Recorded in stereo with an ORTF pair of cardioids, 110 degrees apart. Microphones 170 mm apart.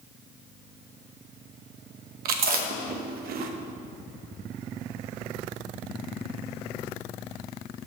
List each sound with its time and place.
2.2 s chewing: 65° right, 0.9 m